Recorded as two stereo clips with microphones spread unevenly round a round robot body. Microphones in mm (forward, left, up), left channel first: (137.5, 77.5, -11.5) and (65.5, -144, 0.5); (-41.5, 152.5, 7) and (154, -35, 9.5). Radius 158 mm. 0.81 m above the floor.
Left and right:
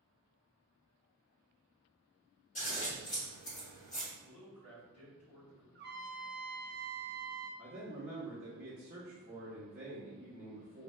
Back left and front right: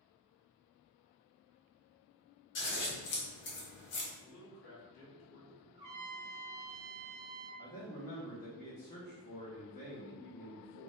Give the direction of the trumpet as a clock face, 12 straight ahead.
2 o'clock.